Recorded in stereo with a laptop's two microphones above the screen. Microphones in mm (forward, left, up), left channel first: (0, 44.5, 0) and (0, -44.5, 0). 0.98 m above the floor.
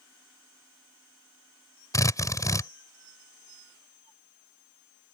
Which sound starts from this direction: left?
A drill, at 1.9 s.